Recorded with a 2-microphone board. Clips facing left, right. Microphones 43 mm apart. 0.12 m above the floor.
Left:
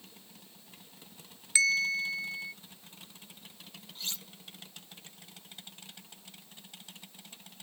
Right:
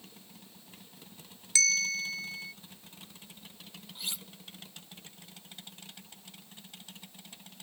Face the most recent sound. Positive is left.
turn(degrees=-15)  # may be behind; listen again after turning